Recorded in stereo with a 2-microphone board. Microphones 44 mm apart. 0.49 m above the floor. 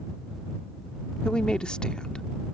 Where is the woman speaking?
20° left (ahead or behind).